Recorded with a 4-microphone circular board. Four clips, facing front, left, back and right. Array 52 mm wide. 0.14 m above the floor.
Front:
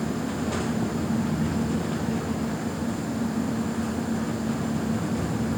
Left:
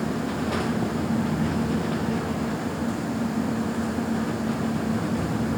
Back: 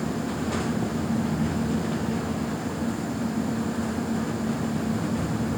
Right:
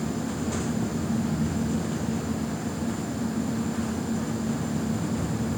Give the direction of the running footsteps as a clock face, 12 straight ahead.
No running footsteps in this recording.